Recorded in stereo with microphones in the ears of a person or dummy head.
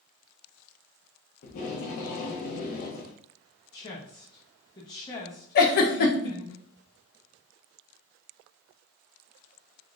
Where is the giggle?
50° left (ahead or behind), 0.6 m.